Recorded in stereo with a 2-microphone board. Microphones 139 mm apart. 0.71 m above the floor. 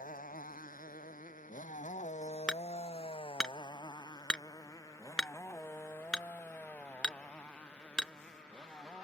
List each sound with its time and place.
0.0 s a motorcycle: 80° left; by 9.1 s 5° left (ahead or behind)
2.5 s hammering: 5° left (ahead or behind)